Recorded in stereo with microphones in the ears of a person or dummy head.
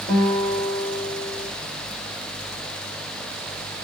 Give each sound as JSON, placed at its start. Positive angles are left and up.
{"t": 0.1, "sound": "a guitar", "side_deg": 20, "distance_m": 1.9}